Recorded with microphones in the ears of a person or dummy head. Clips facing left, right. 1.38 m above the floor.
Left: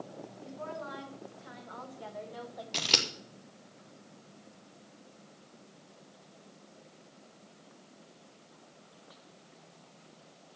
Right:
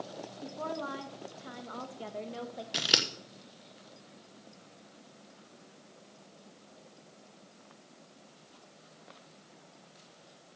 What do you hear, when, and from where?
0.4 s a woman speaking: 60° right (ahead or behind), 2.5 m; by 2.6 s 35° right (ahead or behind), 1.5 m
2.7 s scissors: 10° right (ahead or behind), 1.1 m